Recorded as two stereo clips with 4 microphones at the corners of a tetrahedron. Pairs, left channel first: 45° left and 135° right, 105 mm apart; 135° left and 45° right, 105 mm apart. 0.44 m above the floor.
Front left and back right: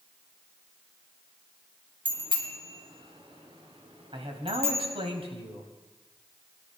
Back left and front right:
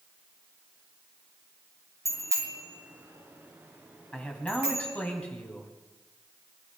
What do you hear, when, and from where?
2.0 s a bicycle bell: 105° right, 3 m; by 4.9 s 125° right, 4.5 m
4.1 s a man speaking: 150° right, 3 m